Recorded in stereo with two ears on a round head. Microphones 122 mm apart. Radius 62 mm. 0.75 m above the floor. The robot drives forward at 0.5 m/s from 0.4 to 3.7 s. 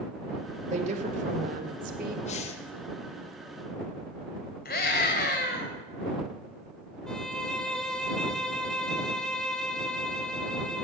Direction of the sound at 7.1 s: 5° left (ahead or behind).